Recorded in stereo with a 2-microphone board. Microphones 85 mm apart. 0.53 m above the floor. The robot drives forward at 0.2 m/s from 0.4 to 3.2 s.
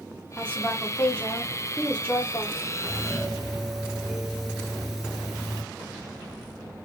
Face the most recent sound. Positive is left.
turn(degrees=-10)  # may be behind; listen again after turning